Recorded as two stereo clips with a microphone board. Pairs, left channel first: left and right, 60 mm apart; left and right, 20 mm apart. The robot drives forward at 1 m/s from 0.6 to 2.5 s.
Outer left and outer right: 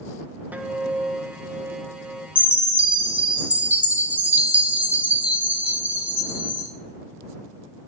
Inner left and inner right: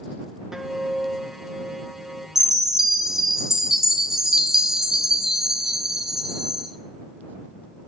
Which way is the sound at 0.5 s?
30° right (ahead or behind).